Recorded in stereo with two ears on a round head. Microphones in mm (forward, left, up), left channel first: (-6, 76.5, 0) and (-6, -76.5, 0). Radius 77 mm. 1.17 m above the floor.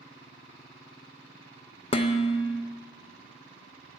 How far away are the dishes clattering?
About 0.5 m.